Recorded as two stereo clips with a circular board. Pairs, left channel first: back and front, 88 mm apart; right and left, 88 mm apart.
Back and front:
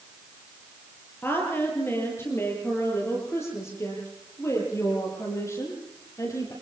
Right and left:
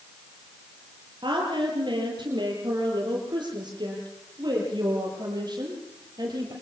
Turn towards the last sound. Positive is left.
turn(degrees=130)